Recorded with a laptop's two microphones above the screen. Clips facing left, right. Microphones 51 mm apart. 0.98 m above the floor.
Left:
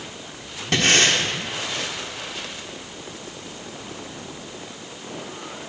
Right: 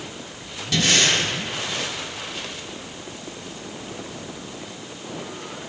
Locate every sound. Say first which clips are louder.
0.7 s breathing: left 2 dB; 45° left (ahead or behind), 1.2 m